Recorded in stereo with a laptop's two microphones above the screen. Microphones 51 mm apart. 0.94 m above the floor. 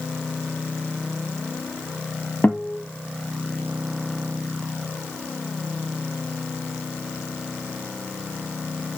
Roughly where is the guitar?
Left.